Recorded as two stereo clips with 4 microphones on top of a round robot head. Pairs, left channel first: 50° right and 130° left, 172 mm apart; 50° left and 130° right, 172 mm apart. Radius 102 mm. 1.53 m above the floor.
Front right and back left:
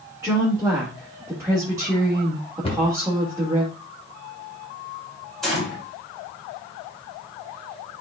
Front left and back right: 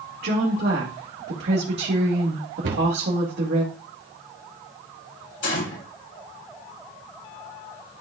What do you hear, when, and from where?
0.2 s a woman speaking: 160° right, 2 m
2.6 s a cupboard door: 110° right, 1.9 m
5.4 s a gunshot: 35° left, 3.5 m